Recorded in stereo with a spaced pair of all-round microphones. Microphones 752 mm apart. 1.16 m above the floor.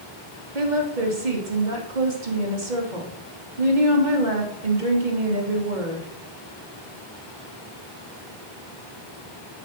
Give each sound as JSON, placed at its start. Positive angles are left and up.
{"t": 0.6, "sound": "a woman speaking", "side_deg": -80, "distance_m": 2.5}